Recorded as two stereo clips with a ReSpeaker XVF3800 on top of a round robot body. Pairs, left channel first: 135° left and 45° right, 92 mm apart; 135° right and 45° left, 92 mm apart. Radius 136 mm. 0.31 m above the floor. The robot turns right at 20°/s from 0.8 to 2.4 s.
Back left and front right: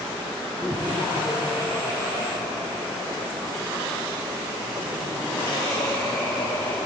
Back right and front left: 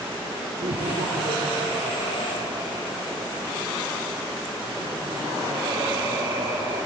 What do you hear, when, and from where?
0.6 s laughter: 50° left, 8 m; by 6.8 s 80° left, 8 m